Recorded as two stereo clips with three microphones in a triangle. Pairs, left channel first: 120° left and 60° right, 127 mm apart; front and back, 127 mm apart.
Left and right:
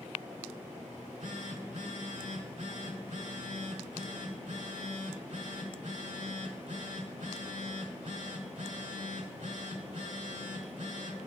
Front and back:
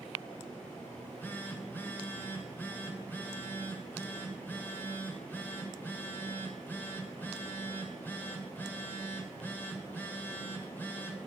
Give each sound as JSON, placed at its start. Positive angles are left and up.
{"t": 0.9, "sound": "a phone buzzing", "azimuth_deg": -75, "distance_m": 1.4}